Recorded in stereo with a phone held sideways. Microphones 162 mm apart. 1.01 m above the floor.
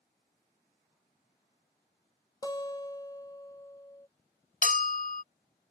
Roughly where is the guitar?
Left.